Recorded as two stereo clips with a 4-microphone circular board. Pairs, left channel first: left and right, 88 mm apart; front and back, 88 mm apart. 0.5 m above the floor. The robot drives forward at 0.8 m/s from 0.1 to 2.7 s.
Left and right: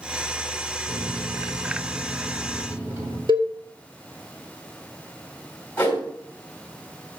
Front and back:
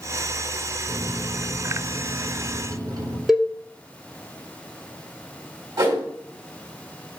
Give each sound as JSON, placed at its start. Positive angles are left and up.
{"t": 0.9, "sound": "a microwave", "azimuth_deg": -125, "distance_m": 2.0}
{"t": 3.3, "sound": "a cowbell", "azimuth_deg": -95, "distance_m": 1.4}
{"t": 5.8, "sound": "a whoosh", "azimuth_deg": 160, "distance_m": 3.0}